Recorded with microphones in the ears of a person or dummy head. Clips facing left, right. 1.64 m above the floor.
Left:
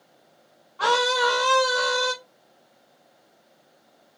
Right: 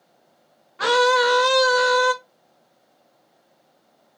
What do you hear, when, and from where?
0.8 s a scream: 30° right (ahead or behind), 0.7 m